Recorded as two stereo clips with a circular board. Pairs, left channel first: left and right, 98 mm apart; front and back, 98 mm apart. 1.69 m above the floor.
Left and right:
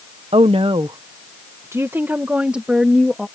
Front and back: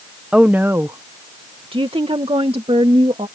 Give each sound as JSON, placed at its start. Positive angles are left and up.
{"t": 0.3, "sound": "a woman speaking", "azimuth_deg": -100}